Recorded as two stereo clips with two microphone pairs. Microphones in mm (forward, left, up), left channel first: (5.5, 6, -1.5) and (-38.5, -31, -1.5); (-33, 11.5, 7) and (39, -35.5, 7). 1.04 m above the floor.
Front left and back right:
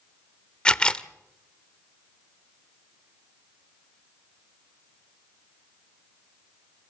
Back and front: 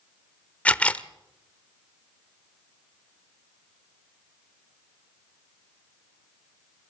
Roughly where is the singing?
I don't hear singing.